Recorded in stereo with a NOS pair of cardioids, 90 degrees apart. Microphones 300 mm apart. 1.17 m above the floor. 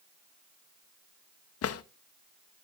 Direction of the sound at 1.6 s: 55° left.